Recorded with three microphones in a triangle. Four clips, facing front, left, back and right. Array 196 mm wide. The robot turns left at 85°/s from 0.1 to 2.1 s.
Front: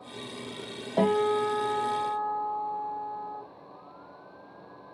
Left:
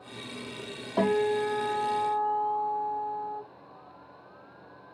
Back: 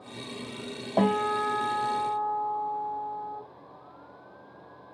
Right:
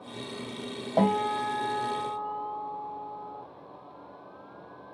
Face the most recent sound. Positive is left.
turn(degrees=140)